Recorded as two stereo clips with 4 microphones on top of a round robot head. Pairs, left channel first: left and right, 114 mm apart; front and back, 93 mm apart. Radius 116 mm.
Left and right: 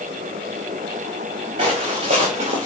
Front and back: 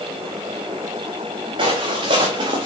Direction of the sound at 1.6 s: 135° right.